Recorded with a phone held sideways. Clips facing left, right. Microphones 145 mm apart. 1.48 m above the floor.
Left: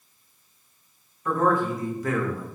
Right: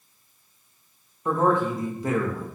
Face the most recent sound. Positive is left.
turn(degrees=-25)  # may be behind; listen again after turning